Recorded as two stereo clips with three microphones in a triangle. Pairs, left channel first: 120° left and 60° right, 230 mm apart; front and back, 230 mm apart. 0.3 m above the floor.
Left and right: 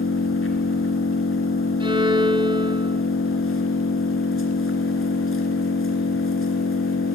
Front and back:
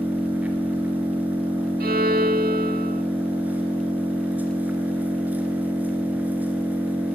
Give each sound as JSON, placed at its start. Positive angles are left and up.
{"t": 0.0, "sound": "an engine running", "azimuth_deg": 95, "distance_m": 2.5}
{"t": 1.8, "sound": "a violin", "azimuth_deg": -125, "distance_m": 0.5}